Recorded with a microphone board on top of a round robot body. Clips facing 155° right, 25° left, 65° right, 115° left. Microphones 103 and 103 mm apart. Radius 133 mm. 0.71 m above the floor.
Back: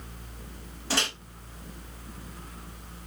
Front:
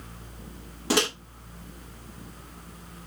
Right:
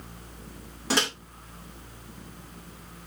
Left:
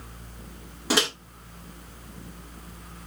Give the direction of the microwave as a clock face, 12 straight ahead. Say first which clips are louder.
Front 6 dB, left 2 dB; 11 o'clock.